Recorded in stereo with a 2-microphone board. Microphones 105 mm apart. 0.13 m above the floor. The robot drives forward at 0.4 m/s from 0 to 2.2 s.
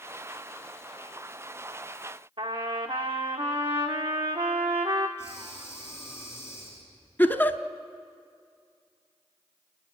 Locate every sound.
2.4 s a trumpet: 55° right (ahead or behind), 2.0 m
5.2 s breathing: 20° left (ahead or behind), 7.5 m
7.2 s a giggle: 20° left (ahead or behind), 0.8 m